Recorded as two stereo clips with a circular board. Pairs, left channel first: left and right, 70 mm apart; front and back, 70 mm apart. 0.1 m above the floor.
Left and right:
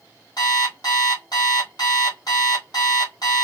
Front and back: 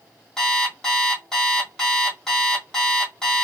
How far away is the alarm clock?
About 2 m.